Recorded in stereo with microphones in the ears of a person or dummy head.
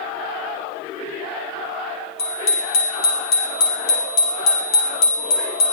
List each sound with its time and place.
2.2 s a bicycle bell: 60° left (ahead or behind), 7 m